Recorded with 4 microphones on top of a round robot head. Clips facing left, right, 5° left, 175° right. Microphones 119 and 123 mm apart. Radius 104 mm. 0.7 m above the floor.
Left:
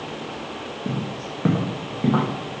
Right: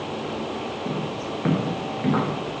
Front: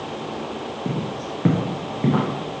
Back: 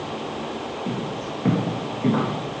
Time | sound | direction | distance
0.8 | footsteps | 20° left | 1.8 m